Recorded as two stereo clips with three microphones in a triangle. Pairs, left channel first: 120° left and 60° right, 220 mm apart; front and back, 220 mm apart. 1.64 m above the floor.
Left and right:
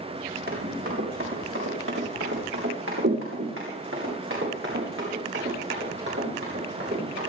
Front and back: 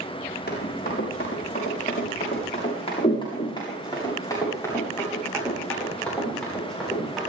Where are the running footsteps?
40° right, 7 m; by 7.3 s 90° right, 11.5 m.